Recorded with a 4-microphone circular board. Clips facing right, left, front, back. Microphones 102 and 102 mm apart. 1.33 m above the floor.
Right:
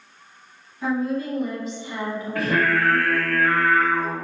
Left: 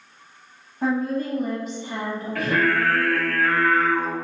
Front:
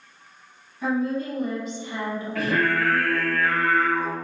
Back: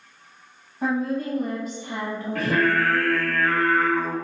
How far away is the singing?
About 1.1 m.